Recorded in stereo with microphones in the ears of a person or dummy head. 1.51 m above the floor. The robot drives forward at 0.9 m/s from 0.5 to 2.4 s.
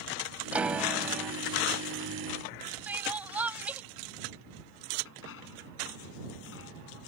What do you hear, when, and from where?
0.5 s a piano: 5° right (ahead or behind)
2.9 s crying: 10° right (ahead or behind)
5.0 s a dropped coin: 65° left (ahead or behind)